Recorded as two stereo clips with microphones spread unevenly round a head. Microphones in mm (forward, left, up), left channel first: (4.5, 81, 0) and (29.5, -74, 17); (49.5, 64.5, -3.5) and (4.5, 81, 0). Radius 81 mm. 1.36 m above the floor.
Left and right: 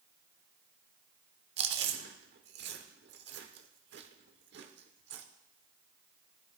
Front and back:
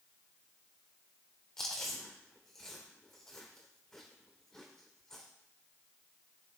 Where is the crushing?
No crushing in this recording.